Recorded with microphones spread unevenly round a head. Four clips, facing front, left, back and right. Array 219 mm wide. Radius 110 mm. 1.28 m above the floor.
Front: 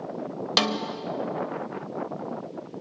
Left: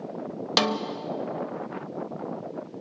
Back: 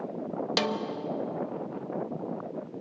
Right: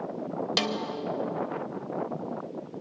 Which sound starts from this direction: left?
A snare drum, at 0.6 s.